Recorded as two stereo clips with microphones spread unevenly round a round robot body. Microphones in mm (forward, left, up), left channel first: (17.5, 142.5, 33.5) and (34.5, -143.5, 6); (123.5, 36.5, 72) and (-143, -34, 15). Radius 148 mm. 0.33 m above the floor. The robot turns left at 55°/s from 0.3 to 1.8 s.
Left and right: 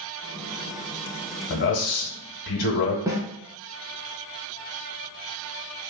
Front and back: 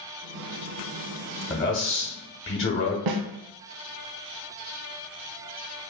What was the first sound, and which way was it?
A man speaking, 70° left.